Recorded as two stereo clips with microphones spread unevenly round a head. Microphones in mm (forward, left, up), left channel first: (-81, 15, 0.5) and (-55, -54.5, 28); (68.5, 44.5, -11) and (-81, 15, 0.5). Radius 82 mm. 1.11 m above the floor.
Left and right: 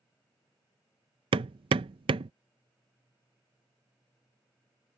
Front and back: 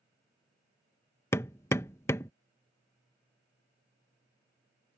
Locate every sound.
1.3 s hammering: 65° right